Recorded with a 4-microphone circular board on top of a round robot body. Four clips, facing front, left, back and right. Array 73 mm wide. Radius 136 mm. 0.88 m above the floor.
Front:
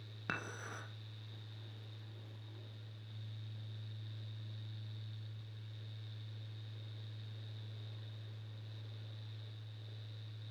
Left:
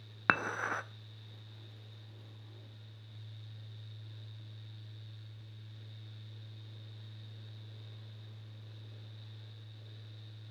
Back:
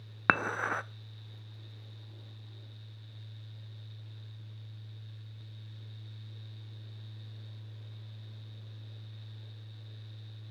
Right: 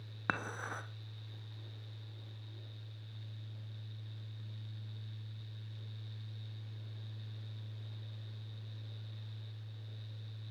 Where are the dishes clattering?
160° left, 0.8 m.